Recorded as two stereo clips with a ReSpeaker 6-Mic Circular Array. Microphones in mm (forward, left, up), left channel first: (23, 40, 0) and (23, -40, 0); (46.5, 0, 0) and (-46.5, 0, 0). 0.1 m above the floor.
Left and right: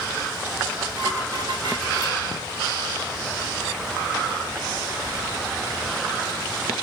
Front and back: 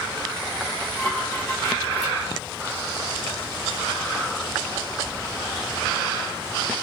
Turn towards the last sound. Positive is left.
turn(degrees=-90)